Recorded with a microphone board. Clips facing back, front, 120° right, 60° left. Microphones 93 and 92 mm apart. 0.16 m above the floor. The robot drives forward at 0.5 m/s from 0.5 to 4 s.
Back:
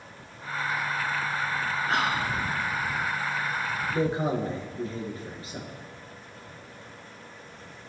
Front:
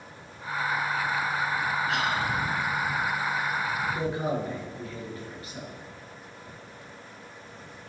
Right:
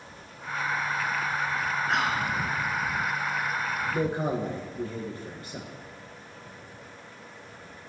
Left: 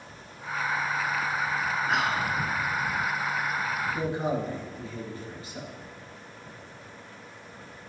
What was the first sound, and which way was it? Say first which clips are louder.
Whispering: back 1 dB, even; 145° left.